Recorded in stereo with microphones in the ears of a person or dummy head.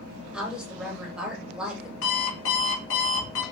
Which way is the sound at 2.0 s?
70° left (ahead or behind).